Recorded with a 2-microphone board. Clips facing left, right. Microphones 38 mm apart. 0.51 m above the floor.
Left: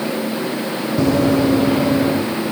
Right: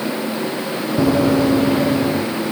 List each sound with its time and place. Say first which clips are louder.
1.0 s running footsteps: even; 15° right (ahead or behind), 1.1 m; by 2.2 s 5° left (ahead or behind), 2 m